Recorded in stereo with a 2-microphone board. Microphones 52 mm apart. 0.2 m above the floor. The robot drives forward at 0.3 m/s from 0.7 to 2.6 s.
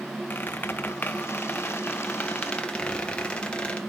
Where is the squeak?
40° left (ahead or behind), 0.7 m; by 3.8 s 20° left (ahead or behind), 1.2 m.